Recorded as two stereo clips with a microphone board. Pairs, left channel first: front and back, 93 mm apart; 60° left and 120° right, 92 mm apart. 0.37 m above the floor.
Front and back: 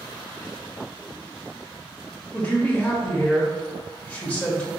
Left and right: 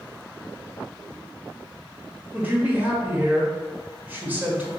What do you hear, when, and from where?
2.3 s a man speaking: 65° right, 1.1 m